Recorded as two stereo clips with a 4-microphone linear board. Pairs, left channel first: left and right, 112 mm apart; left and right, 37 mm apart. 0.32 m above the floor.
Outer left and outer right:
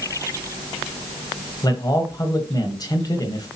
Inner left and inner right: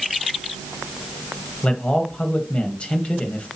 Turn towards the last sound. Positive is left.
turn(degrees=35)  # may be behind; listen again after turning